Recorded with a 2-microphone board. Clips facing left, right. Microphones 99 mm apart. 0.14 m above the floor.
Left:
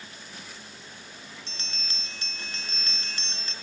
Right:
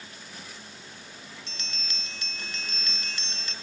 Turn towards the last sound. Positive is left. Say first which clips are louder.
# even
turn(degrees=35)  # may be behind; listen again after turning